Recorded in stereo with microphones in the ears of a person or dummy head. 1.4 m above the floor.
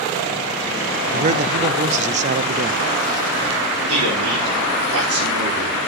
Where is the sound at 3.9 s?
75° right (ahead or behind), 4.5 m.